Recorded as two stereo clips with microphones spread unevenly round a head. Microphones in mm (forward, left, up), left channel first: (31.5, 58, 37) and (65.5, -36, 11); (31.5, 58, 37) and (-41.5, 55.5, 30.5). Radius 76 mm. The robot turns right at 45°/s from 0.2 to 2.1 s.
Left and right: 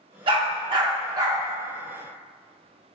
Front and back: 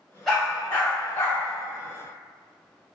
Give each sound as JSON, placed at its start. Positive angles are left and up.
{"t": 0.3, "sound": "a dog barking", "azimuth_deg": -75, "distance_m": 0.6}